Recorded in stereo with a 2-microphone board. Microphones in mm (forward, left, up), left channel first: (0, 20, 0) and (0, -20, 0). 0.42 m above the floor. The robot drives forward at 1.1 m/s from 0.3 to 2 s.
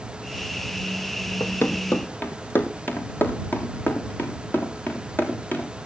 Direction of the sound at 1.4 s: 70° left (ahead or behind).